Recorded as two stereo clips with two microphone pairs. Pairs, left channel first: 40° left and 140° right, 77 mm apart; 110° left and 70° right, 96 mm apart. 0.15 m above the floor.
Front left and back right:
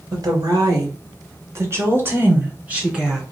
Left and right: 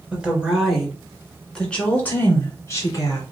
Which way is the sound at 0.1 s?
145° right.